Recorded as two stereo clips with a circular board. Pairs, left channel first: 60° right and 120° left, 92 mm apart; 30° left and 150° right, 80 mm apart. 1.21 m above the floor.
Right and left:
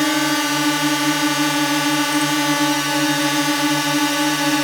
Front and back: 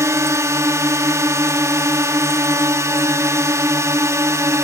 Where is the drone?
150° right.